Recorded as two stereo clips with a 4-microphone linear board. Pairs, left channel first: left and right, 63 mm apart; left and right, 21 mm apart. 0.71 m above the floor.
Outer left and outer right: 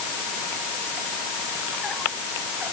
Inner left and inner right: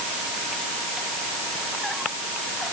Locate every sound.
Only background noise.